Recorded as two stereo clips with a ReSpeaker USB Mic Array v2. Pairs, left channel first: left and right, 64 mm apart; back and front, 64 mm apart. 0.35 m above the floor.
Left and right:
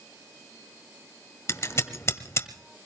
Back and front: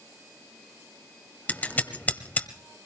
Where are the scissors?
120° left, 1.4 m.